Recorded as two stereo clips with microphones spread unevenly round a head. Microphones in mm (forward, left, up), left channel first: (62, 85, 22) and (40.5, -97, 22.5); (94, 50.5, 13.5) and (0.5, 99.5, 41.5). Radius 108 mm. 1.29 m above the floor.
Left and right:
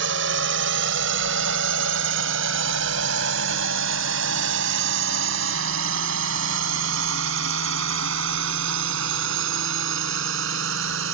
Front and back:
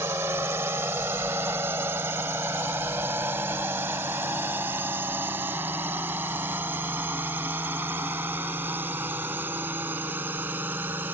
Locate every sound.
0.0 s a drone: 130° right